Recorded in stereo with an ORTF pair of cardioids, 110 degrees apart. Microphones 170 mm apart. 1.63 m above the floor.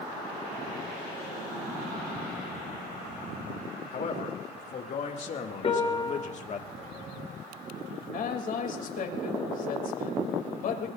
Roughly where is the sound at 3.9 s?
Ahead left.